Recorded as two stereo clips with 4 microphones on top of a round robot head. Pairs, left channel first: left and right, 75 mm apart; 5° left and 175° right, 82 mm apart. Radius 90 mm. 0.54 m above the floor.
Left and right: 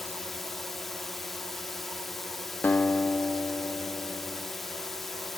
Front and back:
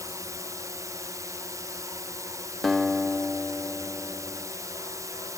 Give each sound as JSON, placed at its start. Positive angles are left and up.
{"t": 0.0, "sound": "a drone", "azimuth_deg": 180}
{"t": 2.6, "sound": "a guitar", "azimuth_deg": 100}